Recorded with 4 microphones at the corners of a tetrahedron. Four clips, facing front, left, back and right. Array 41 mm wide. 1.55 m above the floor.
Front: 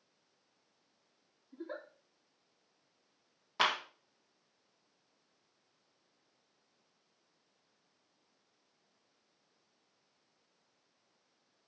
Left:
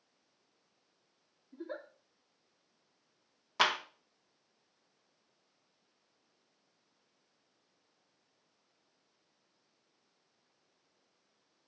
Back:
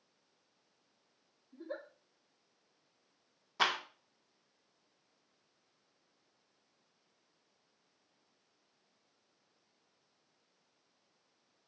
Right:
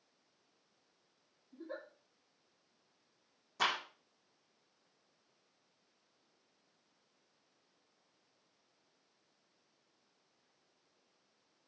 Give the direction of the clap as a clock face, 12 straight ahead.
10 o'clock.